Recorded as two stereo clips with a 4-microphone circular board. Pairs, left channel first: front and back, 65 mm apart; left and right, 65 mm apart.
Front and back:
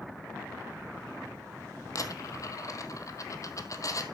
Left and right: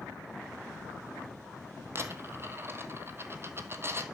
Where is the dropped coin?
35° right, 1.7 m.